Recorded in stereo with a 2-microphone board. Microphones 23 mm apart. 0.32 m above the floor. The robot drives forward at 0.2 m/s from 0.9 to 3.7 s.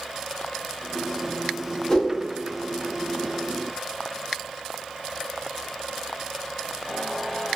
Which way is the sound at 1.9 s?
20° left (ahead or behind).